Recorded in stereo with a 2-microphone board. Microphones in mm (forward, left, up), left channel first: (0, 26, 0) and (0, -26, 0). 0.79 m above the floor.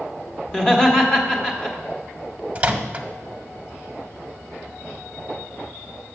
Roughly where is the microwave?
Right.